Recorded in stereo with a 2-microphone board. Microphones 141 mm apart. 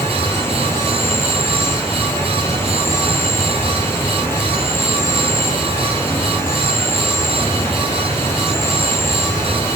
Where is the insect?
15° left (ahead or behind), 1.2 m.